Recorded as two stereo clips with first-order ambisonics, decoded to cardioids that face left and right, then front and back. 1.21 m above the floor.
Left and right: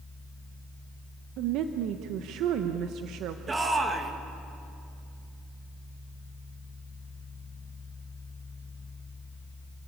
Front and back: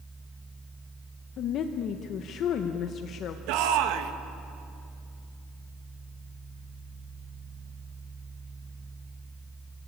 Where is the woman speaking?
50° right, 1.0 m.